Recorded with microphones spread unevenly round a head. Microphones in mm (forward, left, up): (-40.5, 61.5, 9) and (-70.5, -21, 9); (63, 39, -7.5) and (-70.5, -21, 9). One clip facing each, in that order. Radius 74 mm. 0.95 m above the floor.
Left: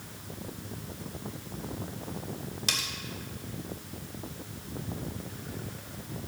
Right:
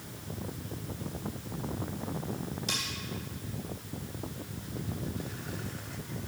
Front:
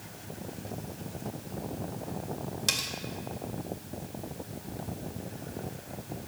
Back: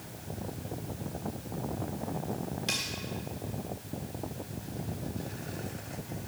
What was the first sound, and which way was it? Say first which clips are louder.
Cutlery clinking: left 1 dB, back 1 dB; 55° left.